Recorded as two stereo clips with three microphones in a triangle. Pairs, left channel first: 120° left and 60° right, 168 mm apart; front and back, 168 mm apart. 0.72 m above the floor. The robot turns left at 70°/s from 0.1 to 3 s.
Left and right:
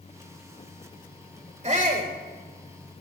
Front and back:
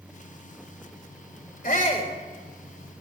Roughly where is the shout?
Ahead.